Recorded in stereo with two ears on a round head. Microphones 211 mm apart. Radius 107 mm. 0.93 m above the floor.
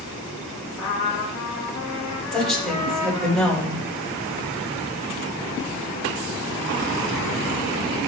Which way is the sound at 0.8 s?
10° left (ahead or behind).